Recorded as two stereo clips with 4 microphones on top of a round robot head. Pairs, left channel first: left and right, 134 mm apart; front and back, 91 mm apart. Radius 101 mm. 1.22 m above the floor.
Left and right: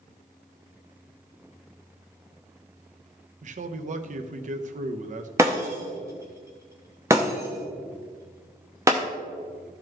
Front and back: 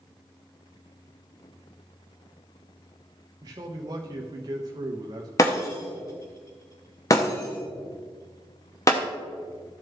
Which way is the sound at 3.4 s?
120° right.